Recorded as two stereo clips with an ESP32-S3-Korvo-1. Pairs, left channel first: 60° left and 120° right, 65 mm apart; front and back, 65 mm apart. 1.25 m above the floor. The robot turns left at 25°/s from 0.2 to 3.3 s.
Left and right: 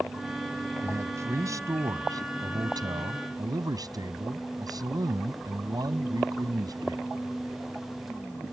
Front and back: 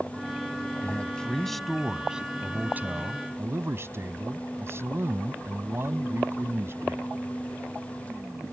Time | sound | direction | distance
0.8 | a man speaking | 70° right | ?